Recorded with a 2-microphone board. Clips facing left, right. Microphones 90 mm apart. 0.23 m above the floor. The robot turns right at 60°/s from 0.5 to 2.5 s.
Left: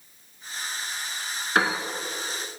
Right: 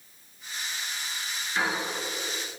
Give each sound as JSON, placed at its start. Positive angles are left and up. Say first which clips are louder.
{"t": 1.6, "sound": "a piano", "louder": "left 5 dB", "side_deg": 75, "distance_m": 1.4}